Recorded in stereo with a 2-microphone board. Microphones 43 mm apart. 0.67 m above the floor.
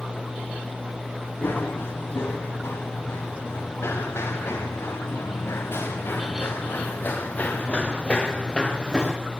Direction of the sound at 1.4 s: 55° left (ahead or behind).